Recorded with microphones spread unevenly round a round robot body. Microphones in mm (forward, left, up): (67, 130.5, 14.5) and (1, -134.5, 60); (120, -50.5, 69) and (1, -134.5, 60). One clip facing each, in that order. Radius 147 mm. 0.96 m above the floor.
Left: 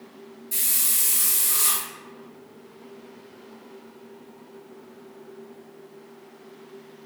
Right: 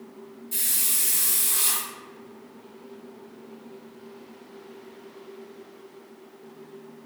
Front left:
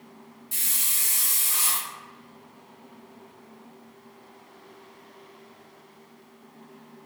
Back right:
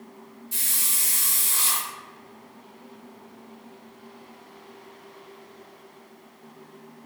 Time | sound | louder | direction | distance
0.5 | a hiss | even, back right 3 dB | 5° left | 1.3 m